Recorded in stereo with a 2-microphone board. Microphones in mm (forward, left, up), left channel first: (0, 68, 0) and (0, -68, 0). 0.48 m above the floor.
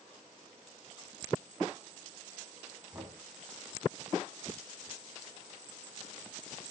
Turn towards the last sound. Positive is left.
turn(degrees=-15)  # may be behind; listen again after turning